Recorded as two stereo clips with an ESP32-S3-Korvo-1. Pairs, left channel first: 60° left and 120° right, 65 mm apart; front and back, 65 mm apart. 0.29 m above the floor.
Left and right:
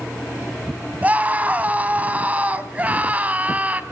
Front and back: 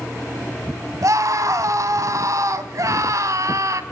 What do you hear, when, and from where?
1.0 s a scream: straight behind, 2.5 m